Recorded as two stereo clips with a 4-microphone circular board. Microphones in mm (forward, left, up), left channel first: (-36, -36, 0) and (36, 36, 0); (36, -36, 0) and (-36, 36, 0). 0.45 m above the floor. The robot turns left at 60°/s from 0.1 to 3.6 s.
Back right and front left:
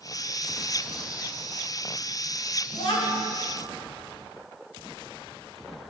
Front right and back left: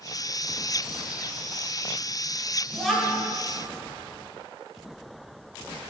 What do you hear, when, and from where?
2.7 s a child speaking: 120° right, 1.7 m; by 3.3 s 155° right, 1.7 m